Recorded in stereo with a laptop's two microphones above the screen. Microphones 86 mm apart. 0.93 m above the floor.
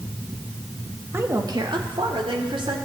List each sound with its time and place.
1.1 s a woman speaking: 30° right (ahead or behind), 1.3 m; by 2.8 s 80° right, 3 m